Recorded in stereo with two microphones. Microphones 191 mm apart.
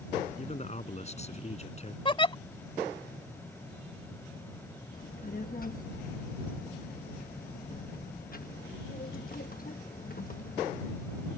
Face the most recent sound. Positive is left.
turn(degrees=50)  # may be behind; listen again after turning